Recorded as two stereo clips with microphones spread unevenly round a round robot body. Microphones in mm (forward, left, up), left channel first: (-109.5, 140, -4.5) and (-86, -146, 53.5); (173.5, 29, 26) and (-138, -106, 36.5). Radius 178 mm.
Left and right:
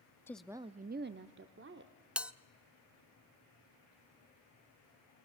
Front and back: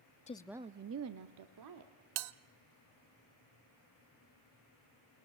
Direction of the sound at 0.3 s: 55° left.